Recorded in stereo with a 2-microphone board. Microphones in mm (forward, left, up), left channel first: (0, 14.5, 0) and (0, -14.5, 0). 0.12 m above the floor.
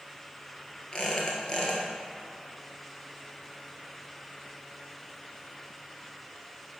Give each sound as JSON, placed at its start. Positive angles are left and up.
{"t": 0.9, "sound": "a squeak", "side_deg": 25, "distance_m": 1.5}